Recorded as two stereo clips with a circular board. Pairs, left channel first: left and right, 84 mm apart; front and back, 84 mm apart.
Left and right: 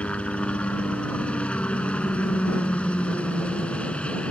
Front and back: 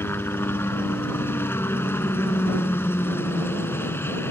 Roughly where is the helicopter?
Ahead left.